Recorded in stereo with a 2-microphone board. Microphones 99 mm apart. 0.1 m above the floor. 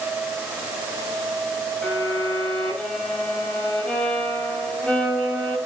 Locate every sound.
1.8 s a violin: 10° left (ahead or behind), 10 m